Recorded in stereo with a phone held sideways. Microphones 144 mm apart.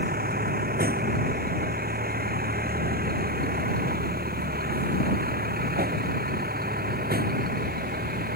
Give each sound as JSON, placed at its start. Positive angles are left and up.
{"t": 0.0, "sound": "a vehicle", "side_deg": -90}